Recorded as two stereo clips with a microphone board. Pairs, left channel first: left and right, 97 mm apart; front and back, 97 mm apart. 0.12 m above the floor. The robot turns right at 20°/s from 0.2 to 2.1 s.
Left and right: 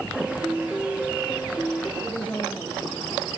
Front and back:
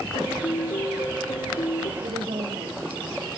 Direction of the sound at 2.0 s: 160° left.